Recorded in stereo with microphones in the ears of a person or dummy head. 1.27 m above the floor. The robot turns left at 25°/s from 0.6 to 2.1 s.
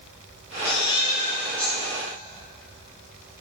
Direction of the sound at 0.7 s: 30° left (ahead or behind).